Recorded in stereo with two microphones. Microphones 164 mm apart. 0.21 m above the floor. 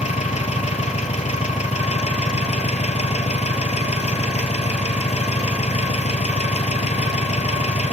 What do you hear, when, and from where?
0.0 s an engine running: 45° left (ahead or behind), 1.0 m